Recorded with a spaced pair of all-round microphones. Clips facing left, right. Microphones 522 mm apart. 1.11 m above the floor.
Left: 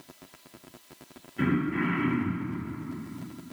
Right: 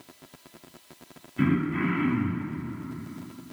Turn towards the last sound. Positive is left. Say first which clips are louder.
# right 2 dB
turn(degrees=-25)  # may be behind; listen again after turning